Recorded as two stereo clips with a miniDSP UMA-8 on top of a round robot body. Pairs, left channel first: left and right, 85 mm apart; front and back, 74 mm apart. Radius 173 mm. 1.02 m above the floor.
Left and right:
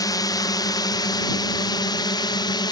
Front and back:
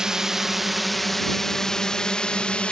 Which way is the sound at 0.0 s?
100° left.